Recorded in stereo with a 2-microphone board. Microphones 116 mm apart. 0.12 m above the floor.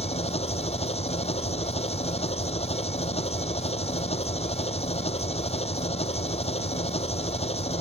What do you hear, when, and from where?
0.0 s an engine running: 60° left (ahead or behind)